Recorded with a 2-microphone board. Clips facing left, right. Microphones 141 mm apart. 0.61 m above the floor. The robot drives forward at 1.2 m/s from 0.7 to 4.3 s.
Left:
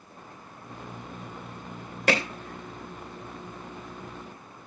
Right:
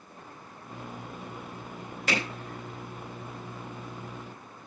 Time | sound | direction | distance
2.1 | hammering | 70° left (ahead or behind) | 2.5 m